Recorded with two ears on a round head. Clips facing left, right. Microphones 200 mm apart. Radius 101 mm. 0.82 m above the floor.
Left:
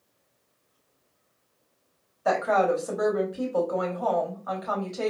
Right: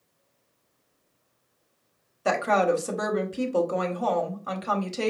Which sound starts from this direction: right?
A woman speaking, at 2.2 s.